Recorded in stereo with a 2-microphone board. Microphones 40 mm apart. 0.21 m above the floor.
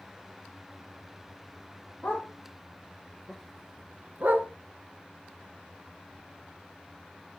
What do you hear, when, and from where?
2.0 s a dog barking: 45° left (ahead or behind), 3 m; by 4.5 s 60° right (ahead or behind), 1.4 m